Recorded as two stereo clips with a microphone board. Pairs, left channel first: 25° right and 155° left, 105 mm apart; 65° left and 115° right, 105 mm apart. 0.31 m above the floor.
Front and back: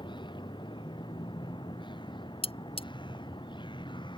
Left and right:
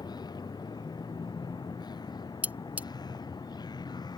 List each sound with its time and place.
0.0 s a vehicle: 20° left
2.4 s cutlery clinking: 40° right